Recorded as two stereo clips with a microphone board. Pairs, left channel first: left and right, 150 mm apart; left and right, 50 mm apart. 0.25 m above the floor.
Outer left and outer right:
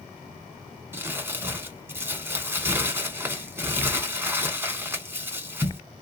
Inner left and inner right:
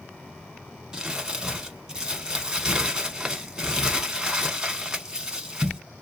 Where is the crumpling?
15° right (ahead or behind), 0.7 m.